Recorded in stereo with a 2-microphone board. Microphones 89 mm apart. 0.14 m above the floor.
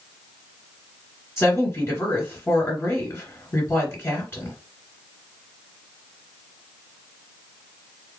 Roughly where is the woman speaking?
Left.